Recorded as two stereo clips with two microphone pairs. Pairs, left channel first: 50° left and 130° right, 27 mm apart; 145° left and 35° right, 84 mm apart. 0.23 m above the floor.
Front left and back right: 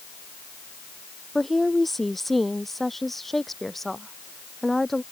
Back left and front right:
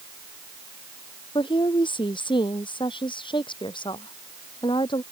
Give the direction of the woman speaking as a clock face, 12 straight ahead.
8 o'clock.